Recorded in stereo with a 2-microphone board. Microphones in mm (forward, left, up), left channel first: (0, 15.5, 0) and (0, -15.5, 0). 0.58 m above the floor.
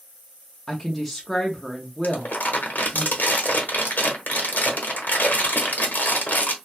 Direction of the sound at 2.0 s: 70° left (ahead or behind).